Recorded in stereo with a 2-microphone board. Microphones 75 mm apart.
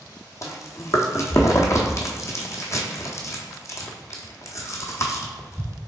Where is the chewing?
40° left (ahead or behind), 0.7 m.